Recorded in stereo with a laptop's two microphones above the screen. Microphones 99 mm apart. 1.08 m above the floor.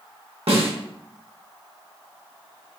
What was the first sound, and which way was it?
A snare drum, 75° right (ahead or behind).